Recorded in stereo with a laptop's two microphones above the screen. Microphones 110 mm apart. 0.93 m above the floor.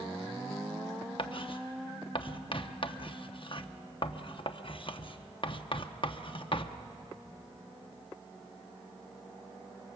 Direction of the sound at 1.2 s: 50° left (ahead or behind).